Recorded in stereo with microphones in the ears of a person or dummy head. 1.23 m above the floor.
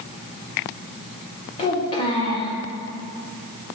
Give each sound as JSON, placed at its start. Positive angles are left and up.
{"t": 1.6, "sound": "a child speaking", "side_deg": 25, "distance_m": 1.8}